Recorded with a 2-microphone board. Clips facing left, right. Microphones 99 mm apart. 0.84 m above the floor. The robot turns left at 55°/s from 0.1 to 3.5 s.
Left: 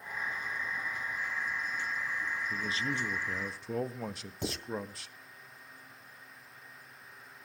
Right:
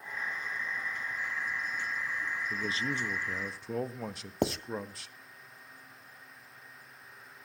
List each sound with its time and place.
2.5 s a man speaking: 120° right, 1.1 m; by 5.2 s 175° right, 1.1 m
4.4 s writing: 65° right (ahead or behind), 1.3 m